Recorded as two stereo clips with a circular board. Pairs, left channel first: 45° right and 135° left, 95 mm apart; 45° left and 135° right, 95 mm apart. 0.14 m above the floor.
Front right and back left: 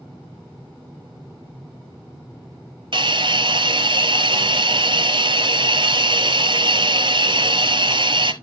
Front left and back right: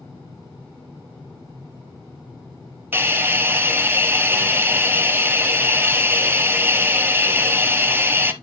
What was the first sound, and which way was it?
A hiss, 160° left.